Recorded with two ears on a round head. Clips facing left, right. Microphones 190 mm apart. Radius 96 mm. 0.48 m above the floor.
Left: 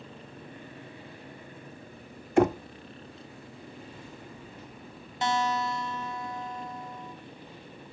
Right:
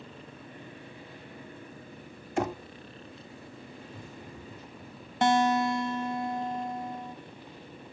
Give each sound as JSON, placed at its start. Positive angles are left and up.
{"t": 2.4, "sound": "knocking", "side_deg": 45, "distance_m": 0.5}
{"t": 3.9, "sound": "running footsteps", "side_deg": -80, "distance_m": 7.5}
{"t": 5.2, "sound": "a guitar", "side_deg": -40, "distance_m": 0.9}